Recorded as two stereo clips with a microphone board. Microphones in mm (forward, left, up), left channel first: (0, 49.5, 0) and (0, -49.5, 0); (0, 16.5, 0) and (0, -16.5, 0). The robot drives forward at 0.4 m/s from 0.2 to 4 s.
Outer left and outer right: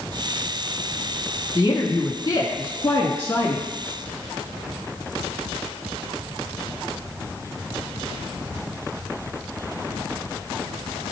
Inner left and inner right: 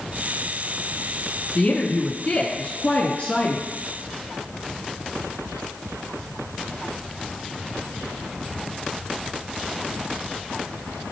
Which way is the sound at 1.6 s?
35° left (ahead or behind).